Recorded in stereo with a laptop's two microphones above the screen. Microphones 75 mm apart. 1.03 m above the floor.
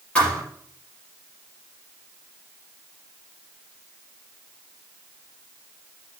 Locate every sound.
0.1 s a thud: 15° left (ahead or behind), 4.5 m